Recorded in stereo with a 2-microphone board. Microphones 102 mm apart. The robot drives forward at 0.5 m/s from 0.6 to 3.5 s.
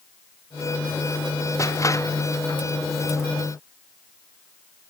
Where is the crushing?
30° left (ahead or behind); by 2.6 s 35° left (ahead or behind).